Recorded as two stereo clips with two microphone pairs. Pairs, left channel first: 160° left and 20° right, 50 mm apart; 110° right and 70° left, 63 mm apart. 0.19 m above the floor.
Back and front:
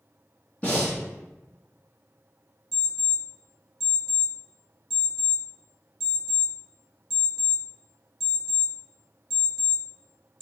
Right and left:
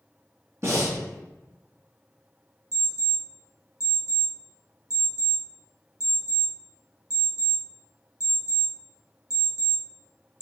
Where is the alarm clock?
85° left, 1.6 m.